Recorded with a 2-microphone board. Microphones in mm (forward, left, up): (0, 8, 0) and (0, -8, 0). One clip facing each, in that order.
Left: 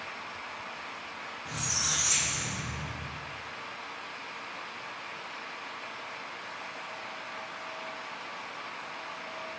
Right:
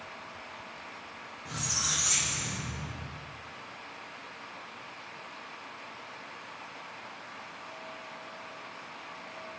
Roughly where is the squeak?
Centre.